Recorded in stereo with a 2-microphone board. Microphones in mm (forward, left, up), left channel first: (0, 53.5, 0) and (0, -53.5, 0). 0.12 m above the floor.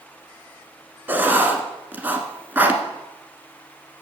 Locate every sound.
1.1 s writing: 20° right (ahead or behind), 1.1 m